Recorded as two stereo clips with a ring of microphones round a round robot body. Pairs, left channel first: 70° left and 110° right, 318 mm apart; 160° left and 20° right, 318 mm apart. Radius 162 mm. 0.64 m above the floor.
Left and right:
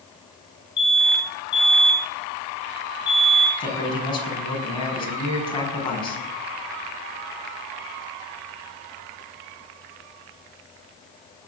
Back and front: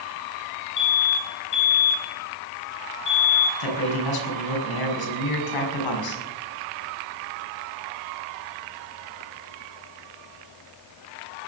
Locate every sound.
0.8 s an alarm: 125° left, 8.5 m
3.6 s a man speaking: 145° left, 5.5 m